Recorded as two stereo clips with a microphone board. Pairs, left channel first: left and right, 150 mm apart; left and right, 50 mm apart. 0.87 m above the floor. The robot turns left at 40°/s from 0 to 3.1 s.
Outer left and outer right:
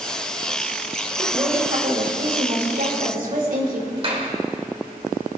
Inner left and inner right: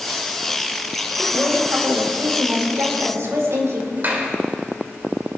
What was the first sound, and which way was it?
A woman speaking, 30° right.